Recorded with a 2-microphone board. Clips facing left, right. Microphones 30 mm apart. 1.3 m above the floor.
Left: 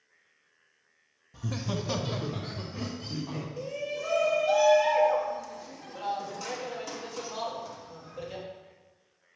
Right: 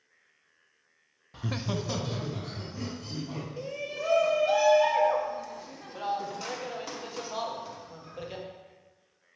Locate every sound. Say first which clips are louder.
1.3 s laughter: right 1 dB; 55° right (ahead or behind), 0.5 m; by 3.5 s 45° left (ahead or behind), 2 m
3.6 s a shout: left 1 dB; 20° right (ahead or behind), 1.0 m